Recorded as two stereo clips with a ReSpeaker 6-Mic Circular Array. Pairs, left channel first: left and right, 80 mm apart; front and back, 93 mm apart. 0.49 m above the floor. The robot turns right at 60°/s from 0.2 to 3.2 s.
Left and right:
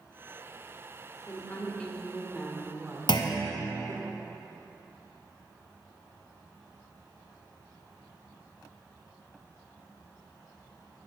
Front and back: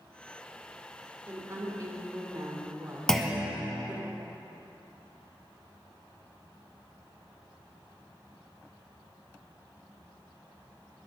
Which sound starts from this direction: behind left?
A woman speaking, at 1.3 s.